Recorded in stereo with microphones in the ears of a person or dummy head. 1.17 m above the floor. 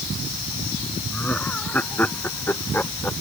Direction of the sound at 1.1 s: 5° left (ahead or behind).